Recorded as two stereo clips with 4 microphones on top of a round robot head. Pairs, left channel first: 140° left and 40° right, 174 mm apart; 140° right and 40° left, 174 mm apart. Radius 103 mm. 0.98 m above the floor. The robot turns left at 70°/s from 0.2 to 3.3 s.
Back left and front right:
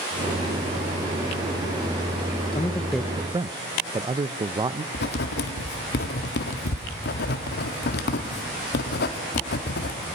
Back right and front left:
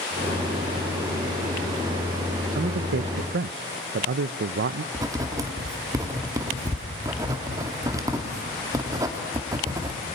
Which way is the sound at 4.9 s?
110° left.